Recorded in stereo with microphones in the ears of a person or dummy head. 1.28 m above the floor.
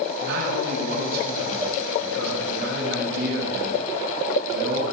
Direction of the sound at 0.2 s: 60° right (ahead or behind).